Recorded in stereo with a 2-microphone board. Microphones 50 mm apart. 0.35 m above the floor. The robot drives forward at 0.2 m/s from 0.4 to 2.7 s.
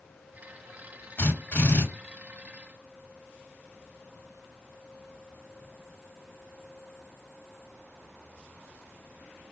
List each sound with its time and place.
1.2 s a drill: 40° left (ahead or behind), 2.5 m